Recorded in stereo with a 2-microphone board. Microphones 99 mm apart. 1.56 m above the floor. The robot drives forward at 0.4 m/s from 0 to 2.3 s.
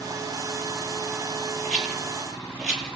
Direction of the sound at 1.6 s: 5° left (ahead or behind).